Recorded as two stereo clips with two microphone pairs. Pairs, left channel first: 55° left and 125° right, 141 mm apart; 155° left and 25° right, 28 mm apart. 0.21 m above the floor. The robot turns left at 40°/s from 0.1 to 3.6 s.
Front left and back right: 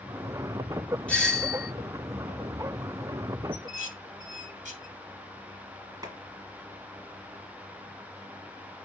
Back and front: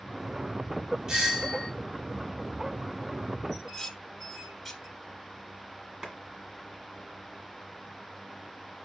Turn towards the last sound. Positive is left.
turn(degrees=-80)